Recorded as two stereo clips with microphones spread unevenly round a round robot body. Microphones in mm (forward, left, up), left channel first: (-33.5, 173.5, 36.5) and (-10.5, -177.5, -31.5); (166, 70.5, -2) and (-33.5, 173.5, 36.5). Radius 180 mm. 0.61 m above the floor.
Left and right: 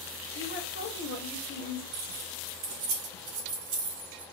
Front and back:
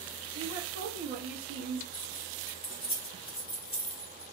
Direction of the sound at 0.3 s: 150° left.